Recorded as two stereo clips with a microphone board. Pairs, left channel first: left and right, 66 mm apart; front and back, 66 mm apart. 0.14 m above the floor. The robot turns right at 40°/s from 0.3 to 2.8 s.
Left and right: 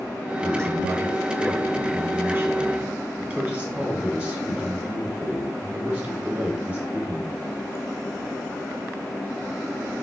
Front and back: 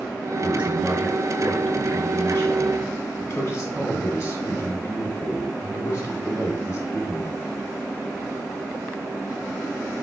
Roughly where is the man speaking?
Behind right.